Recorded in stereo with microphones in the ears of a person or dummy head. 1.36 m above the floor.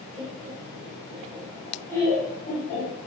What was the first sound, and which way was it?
Laughter, 40° right (ahead or behind).